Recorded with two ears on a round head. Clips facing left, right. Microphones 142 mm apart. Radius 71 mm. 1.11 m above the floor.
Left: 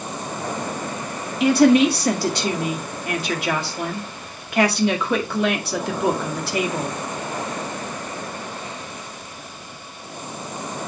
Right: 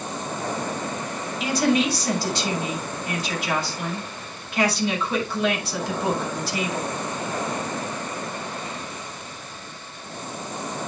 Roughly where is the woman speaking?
Left.